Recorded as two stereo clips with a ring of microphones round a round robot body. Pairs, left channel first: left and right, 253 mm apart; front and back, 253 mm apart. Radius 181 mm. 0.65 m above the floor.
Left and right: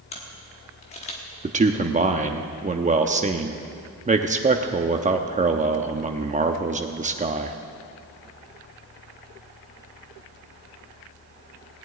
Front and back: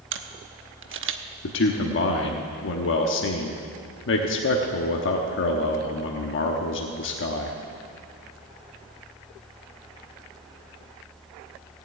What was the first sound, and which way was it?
A camera shutter, 155° left.